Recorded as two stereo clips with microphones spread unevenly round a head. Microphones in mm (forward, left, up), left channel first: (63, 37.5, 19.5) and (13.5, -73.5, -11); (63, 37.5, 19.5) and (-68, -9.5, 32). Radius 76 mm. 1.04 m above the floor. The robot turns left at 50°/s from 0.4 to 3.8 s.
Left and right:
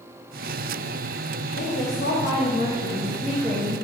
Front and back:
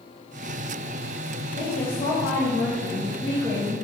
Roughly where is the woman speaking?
Ahead left.